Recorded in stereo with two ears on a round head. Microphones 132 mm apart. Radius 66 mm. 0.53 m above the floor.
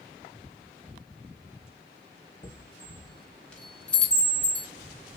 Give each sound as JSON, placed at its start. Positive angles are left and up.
{"t": 2.4, "sound": "a chime", "side_deg": 10, "distance_m": 1.5}